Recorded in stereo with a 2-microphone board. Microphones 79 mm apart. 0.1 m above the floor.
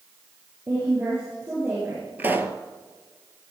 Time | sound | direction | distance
0.7 | a woman speaking | 30° right (ahead or behind) | 7.5 m
2.2 | a pop | 20° right (ahead or behind) | 1.0 m